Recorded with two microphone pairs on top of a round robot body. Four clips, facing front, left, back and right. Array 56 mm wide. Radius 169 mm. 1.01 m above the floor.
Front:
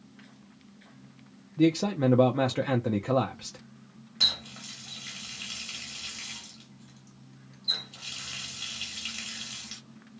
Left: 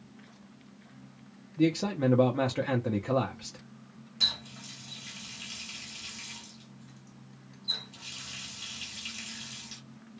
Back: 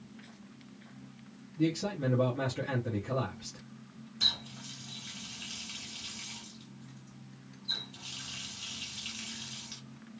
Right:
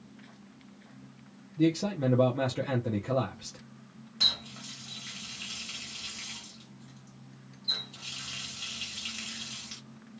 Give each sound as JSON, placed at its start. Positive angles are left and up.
{"t": 1.6, "sound": "a man speaking", "azimuth_deg": 30, "distance_m": 0.6}
{"t": 4.2, "sound": "a running tap", "azimuth_deg": -25, "distance_m": 1.2}